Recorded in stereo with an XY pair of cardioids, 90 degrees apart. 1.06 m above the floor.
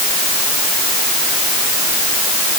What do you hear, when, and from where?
Only background noise.